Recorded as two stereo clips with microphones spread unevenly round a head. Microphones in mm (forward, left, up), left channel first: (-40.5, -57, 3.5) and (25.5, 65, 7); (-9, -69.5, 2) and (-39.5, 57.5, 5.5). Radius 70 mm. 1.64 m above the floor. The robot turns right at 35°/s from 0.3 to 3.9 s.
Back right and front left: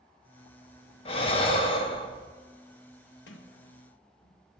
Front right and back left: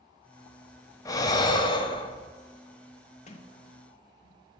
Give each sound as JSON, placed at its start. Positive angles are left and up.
{"t": 1.1, "sound": "breathing", "azimuth_deg": -125, "distance_m": 0.6}
{"t": 3.3, "sound": "a sliding door", "azimuth_deg": -115, "distance_m": 0.7}